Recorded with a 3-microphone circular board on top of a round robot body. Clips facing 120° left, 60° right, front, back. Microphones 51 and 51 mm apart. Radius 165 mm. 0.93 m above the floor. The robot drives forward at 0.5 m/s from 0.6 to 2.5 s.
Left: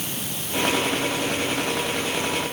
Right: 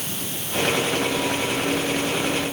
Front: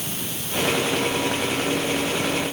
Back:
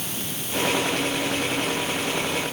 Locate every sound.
Only background noise.